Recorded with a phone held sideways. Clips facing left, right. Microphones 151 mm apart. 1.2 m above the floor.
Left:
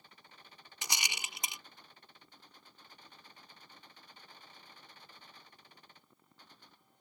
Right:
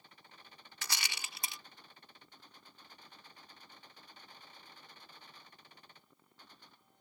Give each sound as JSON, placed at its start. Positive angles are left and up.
{"t": 0.8, "sound": "a rattle", "side_deg": 20}